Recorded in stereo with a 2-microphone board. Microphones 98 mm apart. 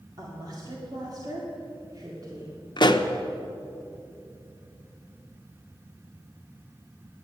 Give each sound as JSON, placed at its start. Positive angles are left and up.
{"t": 0.2, "sound": "a woman speaking", "side_deg": -40, "distance_m": 2.0}
{"t": 2.8, "sound": "a pop", "side_deg": 50, "distance_m": 0.7}